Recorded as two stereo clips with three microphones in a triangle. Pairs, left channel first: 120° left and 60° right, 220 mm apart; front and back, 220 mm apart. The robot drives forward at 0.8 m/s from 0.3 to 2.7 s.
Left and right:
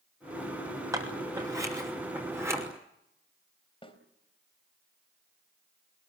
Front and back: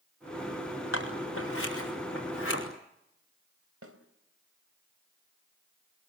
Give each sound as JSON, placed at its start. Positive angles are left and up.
{"t": 0.9, "sound": "scissors", "azimuth_deg": 15, "distance_m": 7.0}
{"t": 3.8, "sound": "a snare drum", "azimuth_deg": -175, "distance_m": 3.0}